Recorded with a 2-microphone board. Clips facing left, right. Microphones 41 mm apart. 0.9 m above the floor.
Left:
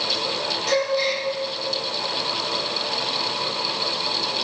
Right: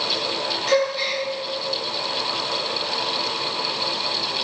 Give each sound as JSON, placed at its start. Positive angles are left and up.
{"t": 0.7, "sound": "a gasp", "side_deg": -20, "distance_m": 2.0}